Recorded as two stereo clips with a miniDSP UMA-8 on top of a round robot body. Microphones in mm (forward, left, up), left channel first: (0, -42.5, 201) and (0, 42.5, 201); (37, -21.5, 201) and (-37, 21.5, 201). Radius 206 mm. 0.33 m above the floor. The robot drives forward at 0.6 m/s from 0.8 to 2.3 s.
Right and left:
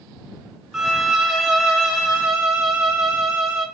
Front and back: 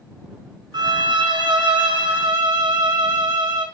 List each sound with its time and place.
0.7 s a violin: straight behind, 0.6 m